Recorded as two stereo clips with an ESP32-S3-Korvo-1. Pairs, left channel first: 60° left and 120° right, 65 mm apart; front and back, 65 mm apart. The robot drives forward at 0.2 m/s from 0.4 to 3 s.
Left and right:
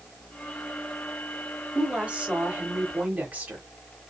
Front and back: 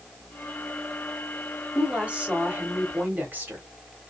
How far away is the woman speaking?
About 0.9 m.